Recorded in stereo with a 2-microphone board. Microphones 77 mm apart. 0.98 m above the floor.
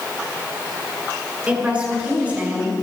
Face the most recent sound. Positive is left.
turn(degrees=-20)  # may be behind; listen again after turning